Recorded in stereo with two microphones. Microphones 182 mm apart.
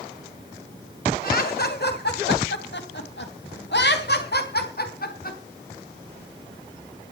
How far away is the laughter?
About 3 m.